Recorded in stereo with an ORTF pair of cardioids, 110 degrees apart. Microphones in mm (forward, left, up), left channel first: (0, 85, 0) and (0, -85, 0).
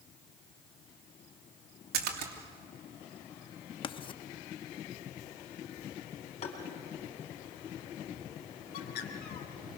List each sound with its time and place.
1.9 s a splash: 70° right, 3 m
3.8 s writing: 30° left, 0.8 m
6.4 s tapping: 40° left, 4.5 m
8.7 s a bird: 65° left, 2.5 m